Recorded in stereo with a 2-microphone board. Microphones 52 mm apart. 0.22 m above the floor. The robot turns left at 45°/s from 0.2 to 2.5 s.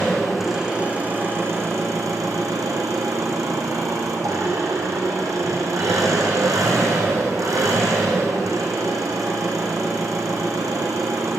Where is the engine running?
5° left, 3.5 m; by 11.4 s 95° right, 3.5 m.